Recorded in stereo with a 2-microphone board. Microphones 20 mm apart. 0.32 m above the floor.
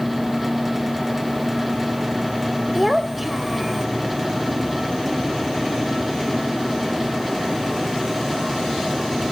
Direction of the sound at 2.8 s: 5° right (ahead or behind).